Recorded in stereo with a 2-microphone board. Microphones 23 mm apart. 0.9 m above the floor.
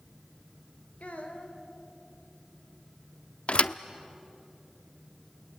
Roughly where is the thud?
Left.